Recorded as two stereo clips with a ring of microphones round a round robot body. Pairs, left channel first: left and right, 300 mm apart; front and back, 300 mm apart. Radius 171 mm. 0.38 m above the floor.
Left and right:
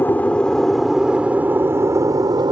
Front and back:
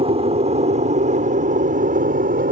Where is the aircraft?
160° left; by 2.5 s 150° right.